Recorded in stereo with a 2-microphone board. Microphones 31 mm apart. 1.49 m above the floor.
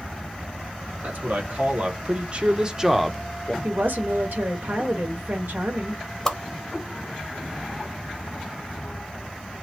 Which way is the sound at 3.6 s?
80° right.